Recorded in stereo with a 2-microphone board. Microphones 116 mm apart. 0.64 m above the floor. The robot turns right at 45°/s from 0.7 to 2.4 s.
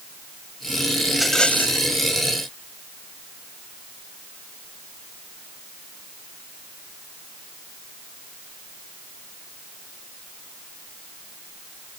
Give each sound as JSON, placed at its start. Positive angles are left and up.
{"t": 1.1, "sound": "a rattle", "azimuth_deg": -5}